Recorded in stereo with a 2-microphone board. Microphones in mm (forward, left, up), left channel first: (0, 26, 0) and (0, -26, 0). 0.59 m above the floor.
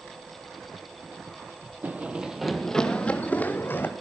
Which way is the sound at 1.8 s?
35° right (ahead or behind).